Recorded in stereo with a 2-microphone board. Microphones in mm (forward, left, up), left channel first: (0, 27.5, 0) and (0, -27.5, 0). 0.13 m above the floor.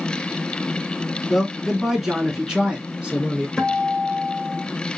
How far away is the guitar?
About 1.1 m.